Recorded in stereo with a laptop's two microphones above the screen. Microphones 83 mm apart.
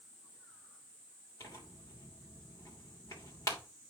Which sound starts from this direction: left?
Tearing paper, at 1.4 s.